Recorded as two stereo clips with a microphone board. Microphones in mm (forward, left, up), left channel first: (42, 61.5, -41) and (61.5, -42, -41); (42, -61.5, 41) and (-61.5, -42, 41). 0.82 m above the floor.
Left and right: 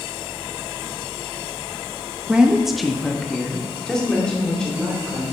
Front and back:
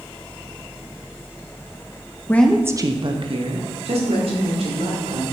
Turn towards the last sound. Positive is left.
turn(degrees=180)